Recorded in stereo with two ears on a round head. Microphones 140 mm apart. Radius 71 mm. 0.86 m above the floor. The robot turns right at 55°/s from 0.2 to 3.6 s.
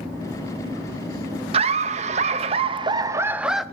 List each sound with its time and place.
1.5 s laughter: 115° right, 0.9 m; by 3.6 s 5° right, 0.9 m